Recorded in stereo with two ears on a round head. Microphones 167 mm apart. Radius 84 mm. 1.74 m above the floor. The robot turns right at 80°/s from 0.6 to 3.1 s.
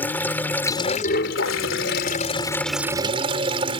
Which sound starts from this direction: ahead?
Running water, at 0.0 s.